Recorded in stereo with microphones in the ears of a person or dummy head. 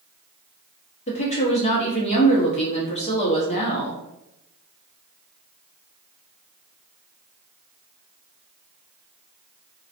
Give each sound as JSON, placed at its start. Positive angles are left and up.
{"t": 1.1, "sound": "a woman speaking", "side_deg": 35, "distance_m": 0.8}